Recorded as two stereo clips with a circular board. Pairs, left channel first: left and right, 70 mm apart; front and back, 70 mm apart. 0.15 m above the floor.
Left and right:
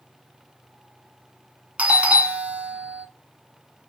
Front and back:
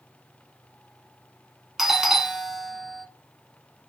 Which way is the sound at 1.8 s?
100° right.